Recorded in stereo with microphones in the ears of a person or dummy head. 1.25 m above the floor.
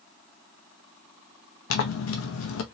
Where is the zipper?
60° left (ahead or behind), 0.7 m.